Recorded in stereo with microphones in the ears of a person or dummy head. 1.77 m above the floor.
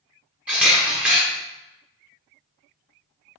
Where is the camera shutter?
Centre (ahead or behind), 0.7 m.